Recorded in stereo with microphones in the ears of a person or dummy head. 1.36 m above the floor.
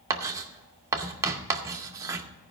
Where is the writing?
15° right (ahead or behind), 0.8 m.